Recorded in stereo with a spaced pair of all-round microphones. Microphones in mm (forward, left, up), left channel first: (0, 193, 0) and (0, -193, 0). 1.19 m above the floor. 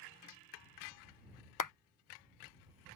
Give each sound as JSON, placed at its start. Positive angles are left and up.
{"t": 1.6, "sound": "a clap", "side_deg": 55}